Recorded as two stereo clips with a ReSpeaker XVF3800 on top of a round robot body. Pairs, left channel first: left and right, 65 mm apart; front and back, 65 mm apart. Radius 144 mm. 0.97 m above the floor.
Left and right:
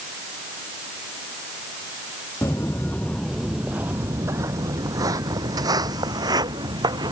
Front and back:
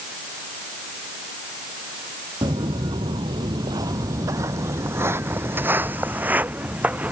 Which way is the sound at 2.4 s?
145° left.